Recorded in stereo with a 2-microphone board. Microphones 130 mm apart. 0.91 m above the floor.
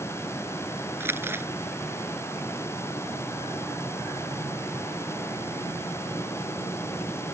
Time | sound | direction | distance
1.0 | crumpling | 15° right (ahead or behind) | ?